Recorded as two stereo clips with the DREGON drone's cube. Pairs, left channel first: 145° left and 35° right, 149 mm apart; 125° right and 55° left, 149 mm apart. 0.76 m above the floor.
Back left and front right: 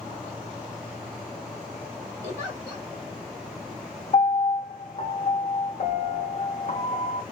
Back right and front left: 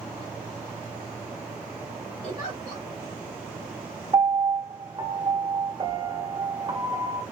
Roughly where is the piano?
Behind left.